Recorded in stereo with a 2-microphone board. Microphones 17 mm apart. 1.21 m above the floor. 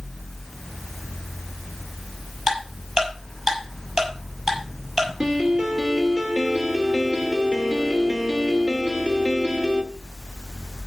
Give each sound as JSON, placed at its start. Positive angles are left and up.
{"t": 2.5, "sound": "ticking", "side_deg": -40, "distance_m": 6.0}
{"t": 5.2, "sound": "a piano", "side_deg": -75, "distance_m": 2.0}